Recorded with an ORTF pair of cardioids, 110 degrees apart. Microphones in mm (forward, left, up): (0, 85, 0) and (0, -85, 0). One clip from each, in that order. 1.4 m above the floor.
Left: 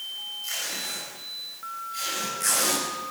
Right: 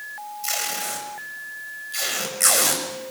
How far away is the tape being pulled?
About 7 m.